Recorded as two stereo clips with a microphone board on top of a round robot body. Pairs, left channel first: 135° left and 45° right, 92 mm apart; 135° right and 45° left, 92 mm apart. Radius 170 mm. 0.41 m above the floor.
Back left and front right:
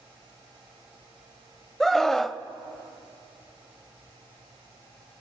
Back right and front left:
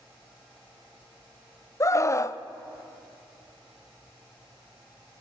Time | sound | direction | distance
1.8 | a scream | 140° right | 1.0 m